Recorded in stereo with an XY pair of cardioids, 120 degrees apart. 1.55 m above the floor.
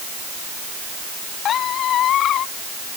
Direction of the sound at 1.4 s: 60° left.